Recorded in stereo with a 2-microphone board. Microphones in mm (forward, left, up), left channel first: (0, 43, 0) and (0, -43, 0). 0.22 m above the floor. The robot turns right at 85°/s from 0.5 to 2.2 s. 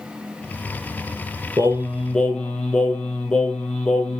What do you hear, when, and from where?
1.6 s singing: 45° right, 1.8 m; by 4.2 s 10° left, 1.8 m